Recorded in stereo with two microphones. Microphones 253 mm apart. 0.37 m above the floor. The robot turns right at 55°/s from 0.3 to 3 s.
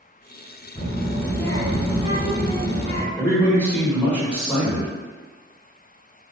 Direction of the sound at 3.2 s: 5° left (ahead or behind).